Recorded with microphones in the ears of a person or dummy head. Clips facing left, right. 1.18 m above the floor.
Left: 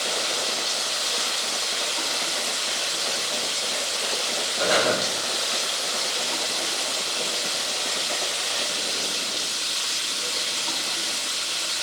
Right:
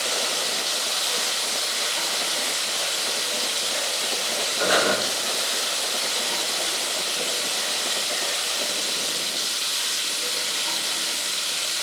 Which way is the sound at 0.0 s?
15° right (ahead or behind).